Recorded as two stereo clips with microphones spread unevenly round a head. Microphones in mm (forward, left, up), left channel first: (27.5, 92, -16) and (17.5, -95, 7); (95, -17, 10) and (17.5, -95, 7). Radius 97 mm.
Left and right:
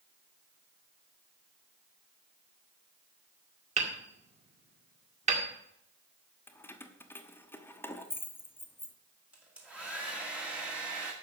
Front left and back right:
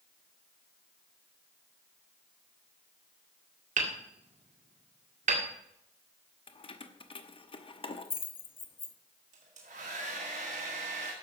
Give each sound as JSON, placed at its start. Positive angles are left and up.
{"t": 3.8, "sound": "hammering", "azimuth_deg": -150, "distance_m": 2.0}
{"t": 6.5, "sound": "keys jangling", "azimuth_deg": 5, "distance_m": 1.1}
{"t": 9.3, "sound": "a hair dryer", "azimuth_deg": -175, "distance_m": 1.7}